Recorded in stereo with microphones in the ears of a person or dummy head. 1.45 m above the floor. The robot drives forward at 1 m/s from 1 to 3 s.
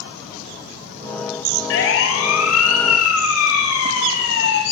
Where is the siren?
70° left (ahead or behind), 5 m; by 4.6 s 60° left (ahead or behind), 4.5 m.